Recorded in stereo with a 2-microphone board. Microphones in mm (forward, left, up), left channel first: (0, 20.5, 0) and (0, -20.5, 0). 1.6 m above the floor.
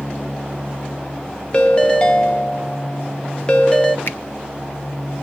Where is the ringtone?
25° left (ahead or behind), 0.9 m.